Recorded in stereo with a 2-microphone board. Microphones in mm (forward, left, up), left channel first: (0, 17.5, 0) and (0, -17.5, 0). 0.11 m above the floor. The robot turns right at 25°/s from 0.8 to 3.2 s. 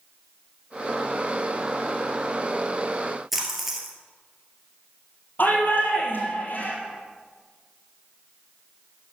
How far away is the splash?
About 2 m.